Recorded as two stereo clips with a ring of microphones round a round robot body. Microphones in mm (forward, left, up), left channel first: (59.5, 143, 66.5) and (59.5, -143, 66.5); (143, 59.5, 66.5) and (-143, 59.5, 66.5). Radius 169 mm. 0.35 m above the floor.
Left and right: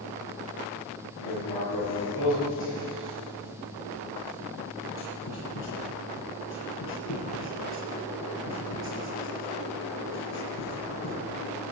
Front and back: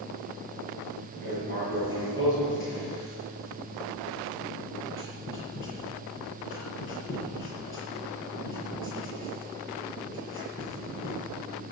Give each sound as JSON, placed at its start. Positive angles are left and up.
{"t": 1.2, "sound": "writing", "azimuth_deg": 45, "distance_m": 6.5}